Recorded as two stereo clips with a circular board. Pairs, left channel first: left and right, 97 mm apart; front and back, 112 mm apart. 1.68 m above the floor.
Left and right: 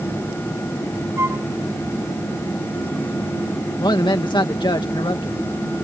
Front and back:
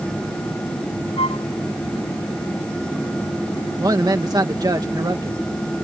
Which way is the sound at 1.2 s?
30° right.